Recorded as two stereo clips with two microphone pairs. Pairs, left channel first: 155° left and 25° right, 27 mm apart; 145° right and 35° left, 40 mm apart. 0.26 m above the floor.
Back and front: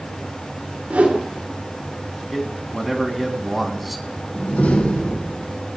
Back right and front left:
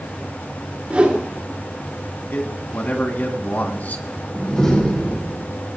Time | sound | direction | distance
0.9 | a whoosh | 20° right | 4 m
2.3 | a man speaking | 115° right | 2 m
4.3 | a door slam | 145° left | 7 m